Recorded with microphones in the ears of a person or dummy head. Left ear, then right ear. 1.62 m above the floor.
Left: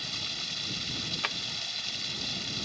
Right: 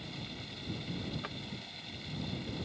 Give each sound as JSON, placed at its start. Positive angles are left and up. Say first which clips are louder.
{"t": 0.0, "sound": "running water", "louder": "left 11 dB", "side_deg": 60}
{"t": 1.2, "sound": "a drawer", "louder": "left 11 dB", "side_deg": 30}